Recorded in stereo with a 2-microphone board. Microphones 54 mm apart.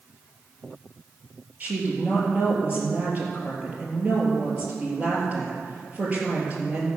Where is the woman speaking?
25° right (ahead or behind), 3.5 m.